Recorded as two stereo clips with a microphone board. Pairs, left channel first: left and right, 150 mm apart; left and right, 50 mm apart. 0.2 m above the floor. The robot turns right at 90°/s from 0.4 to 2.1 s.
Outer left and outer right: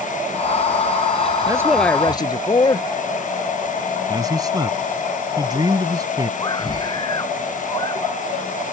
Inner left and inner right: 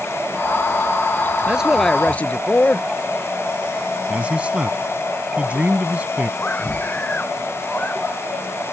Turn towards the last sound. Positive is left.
turn(degrees=30)  # may be behind; listen again after turning